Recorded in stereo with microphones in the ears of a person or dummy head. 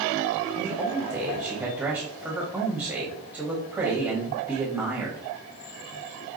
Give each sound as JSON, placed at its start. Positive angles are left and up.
{"t": 0.5, "sound": "a man speaking", "side_deg": -10, "distance_m": 0.9}